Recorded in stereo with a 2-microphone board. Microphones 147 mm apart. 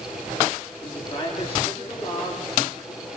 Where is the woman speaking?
35° left (ahead or behind), 9.5 m.